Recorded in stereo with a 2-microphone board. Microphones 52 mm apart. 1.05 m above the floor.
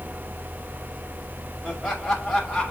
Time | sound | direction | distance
1.6 | laughter | 5° right (ahead or behind) | 4.5 m